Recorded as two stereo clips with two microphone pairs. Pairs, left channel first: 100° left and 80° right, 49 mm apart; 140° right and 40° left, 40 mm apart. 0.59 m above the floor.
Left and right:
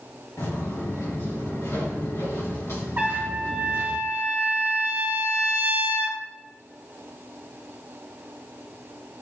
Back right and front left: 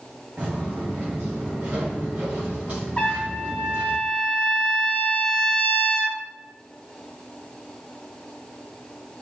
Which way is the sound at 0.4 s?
90° left.